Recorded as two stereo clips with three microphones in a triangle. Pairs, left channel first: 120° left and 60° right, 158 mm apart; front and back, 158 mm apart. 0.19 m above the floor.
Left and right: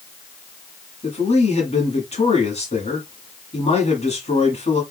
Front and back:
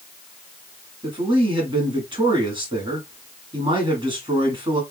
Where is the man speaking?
135° left, 2.0 m.